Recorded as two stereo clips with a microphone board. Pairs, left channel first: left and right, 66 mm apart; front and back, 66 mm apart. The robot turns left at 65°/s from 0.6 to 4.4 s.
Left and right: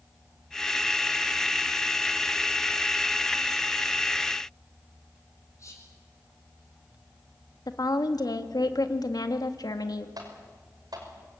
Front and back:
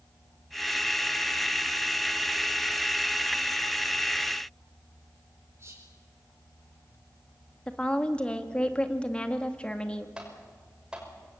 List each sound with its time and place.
5.6 s whispering: 130° left, 4.5 m
7.7 s a woman speaking: 75° left, 1.9 m
10.2 s typing on a keyboard: 100° right, 6 m